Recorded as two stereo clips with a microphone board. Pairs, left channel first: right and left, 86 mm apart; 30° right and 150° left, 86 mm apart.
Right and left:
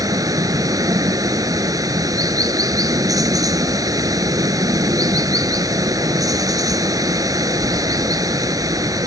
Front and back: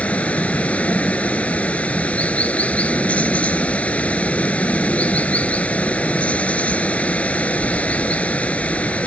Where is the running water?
45° left.